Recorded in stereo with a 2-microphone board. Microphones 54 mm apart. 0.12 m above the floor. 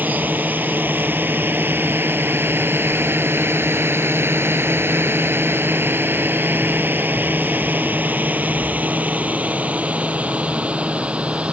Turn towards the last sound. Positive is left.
turn(degrees=-25)  # may be behind; listen again after turning